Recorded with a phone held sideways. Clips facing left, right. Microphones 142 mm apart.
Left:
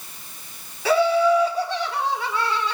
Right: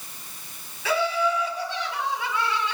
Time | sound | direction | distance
0.8 | laughter | 35° left (ahead or behind) | 3.5 m